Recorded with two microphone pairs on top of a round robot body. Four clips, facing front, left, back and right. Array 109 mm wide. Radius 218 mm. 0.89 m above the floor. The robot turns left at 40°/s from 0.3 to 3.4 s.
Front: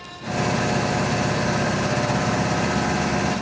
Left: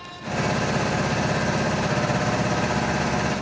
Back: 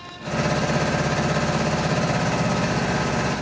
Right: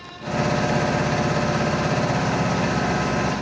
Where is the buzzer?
No buzzer in this recording.